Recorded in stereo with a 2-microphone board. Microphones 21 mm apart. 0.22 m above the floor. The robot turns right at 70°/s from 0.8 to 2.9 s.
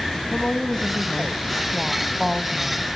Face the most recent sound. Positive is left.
turn(degrees=-145)